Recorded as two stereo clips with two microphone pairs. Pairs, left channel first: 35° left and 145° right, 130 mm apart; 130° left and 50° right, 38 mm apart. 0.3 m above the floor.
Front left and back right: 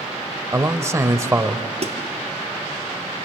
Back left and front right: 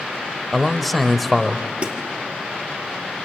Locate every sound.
0.5 s a man speaking: 145° right, 1.1 m
1.8 s a snare drum: 105° right, 2.0 m